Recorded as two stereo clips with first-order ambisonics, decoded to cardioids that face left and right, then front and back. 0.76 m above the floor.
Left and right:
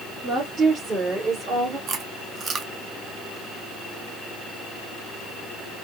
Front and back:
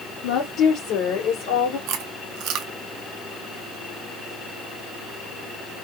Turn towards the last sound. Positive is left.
turn(degrees=-150)